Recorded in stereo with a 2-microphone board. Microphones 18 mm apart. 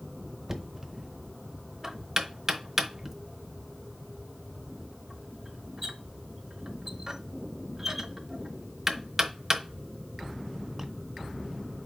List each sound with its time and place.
0.5 s knocking: 20° right (ahead or behind), 0.8 m